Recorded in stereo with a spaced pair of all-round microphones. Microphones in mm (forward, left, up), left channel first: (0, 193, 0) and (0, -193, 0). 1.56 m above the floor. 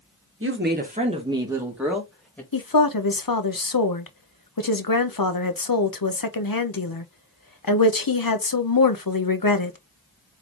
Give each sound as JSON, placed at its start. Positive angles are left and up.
{"t": 0.4, "sound": "a woman speaking", "side_deg": -35, "distance_m": 1.4}
{"t": 2.5, "sound": "a woman speaking", "side_deg": 60, "distance_m": 0.8}